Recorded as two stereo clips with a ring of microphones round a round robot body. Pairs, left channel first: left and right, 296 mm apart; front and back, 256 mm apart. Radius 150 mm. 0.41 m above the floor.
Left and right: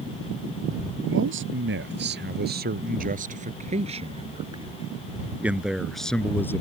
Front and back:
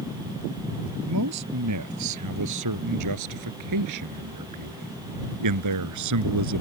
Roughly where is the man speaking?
Behind right.